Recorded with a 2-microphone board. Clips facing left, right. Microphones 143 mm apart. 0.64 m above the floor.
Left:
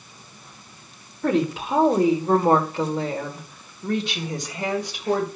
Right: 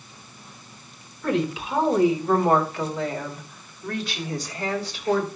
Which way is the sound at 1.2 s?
50° left (ahead or behind).